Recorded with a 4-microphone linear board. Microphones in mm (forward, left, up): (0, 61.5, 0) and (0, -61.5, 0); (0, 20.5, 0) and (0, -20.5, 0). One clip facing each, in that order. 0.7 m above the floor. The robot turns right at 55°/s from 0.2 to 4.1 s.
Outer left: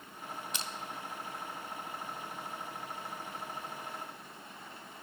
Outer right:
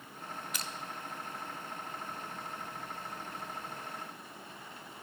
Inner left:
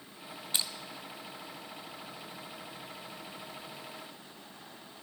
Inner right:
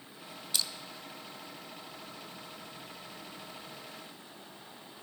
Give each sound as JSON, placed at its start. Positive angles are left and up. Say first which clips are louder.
{"t": 0.5, "sound": "crushing", "louder": "even, even", "side_deg": 25, "distance_m": 0.6}